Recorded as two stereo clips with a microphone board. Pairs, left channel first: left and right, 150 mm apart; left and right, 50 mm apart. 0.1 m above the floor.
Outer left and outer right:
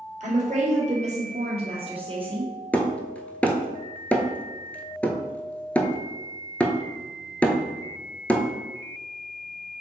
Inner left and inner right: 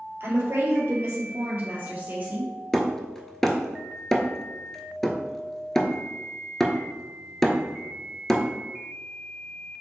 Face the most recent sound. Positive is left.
turn(degrees=10)  # may be behind; listen again after turning